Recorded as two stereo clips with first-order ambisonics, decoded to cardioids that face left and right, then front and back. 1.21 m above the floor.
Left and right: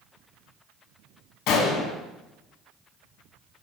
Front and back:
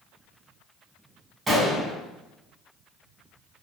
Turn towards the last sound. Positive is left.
turn(degrees=105)